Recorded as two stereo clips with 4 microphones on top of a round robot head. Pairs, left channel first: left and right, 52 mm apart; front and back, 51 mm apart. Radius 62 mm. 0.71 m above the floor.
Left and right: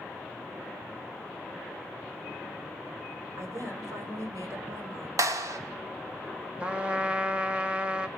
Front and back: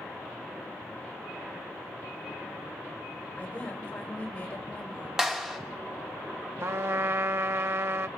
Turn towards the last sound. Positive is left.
turn(degrees=-155)